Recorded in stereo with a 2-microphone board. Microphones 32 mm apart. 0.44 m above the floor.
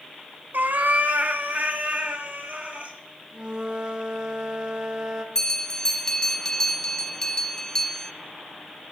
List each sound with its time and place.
0.5 s a cat meowing: 75° right (ahead or behind), 0.7 m; by 3.0 s 45° right (ahead or behind), 2 m
3.3 s a flute: 30° right (ahead or behind), 1.1 m
5.3 s a bell: 20° left (ahead or behind), 1.4 m